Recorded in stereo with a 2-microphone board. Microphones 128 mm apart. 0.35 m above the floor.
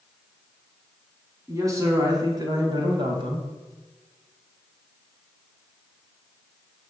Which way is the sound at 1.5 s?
25° right (ahead or behind).